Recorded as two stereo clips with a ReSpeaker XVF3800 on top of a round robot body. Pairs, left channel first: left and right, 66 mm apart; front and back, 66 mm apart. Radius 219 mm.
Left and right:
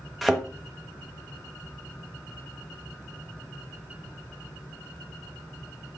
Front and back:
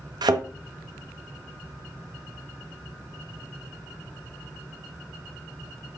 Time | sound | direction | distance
0.2 | a thud | straight behind | 1.2 m